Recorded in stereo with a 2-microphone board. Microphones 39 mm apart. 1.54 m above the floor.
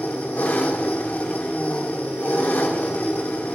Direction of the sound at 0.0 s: 65° left (ahead or behind).